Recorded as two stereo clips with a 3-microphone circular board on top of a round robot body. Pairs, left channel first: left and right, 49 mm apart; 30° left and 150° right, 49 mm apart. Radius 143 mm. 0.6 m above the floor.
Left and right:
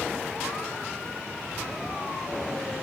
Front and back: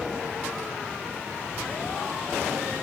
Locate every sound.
1.5 s a child speaking: 170° left, 2.5 m; by 2.7 s 165° right, 3.5 m